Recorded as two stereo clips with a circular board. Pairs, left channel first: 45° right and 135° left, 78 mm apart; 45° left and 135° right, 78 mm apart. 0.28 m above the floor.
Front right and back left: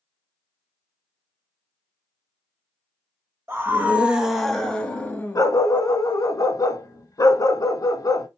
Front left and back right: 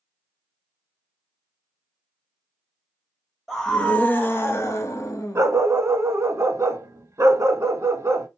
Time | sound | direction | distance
3.5 | a scream | 130° left | 1.1 m
5.3 | a dog barking | 80° right | 0.6 m